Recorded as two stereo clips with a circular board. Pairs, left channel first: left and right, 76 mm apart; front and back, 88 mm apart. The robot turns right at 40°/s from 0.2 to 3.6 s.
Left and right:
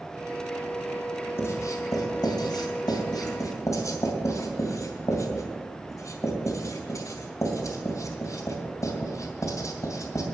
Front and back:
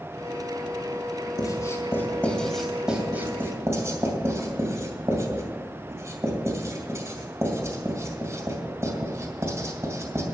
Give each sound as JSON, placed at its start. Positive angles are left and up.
{"t": 1.4, "sound": "writing", "azimuth_deg": 35, "distance_m": 2.5}